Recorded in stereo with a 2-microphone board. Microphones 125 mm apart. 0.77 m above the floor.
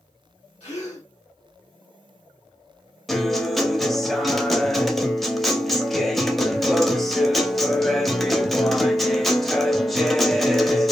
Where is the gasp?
55° left (ahead or behind), 1.6 m.